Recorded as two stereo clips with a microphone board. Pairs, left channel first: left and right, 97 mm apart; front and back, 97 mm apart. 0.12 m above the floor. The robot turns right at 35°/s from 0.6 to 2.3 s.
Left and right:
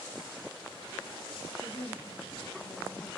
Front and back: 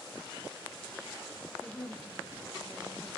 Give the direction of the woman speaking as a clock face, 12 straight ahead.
8 o'clock.